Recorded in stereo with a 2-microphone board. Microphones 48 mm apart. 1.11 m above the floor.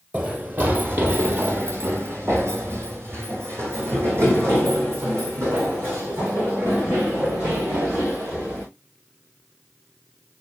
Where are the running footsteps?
30° right (ahead or behind), 1.7 m; by 8.6 s 55° right (ahead or behind), 6.5 m.